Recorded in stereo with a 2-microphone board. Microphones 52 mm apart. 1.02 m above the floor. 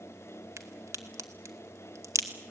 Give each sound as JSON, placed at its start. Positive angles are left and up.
{"t": 0.6, "sound": "a crack", "side_deg": -75, "distance_m": 2.0}